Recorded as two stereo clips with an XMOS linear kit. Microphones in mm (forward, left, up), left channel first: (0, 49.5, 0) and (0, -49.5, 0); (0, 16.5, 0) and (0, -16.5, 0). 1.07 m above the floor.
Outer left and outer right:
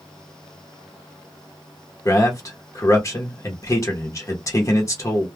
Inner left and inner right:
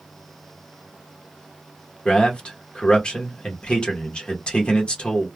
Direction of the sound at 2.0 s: 30° left (ahead or behind).